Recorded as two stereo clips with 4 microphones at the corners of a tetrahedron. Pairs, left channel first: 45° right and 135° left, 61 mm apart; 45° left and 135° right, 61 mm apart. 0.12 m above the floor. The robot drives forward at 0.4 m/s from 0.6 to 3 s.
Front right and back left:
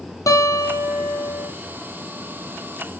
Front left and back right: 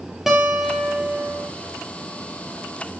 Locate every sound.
0.3 s a guitar: 50° right, 2.0 m; by 1.5 s 60° right, 1.8 m